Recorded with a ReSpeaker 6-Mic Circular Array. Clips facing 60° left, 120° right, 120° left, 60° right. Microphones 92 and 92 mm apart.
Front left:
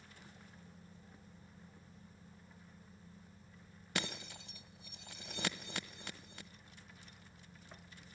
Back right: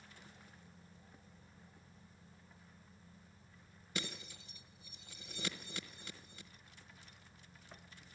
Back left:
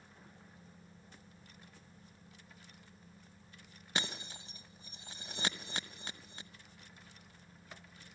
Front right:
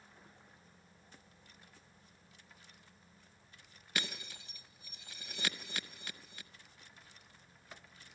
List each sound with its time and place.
4.0 s breaking glass: 60° left, 1.0 m